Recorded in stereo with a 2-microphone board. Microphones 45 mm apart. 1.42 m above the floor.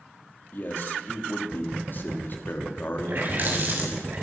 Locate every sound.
0.5 s a man speaking: 50° left (ahead or behind), 3.5 m
3.0 s a running tap: 45° right (ahead or behind), 6.5 m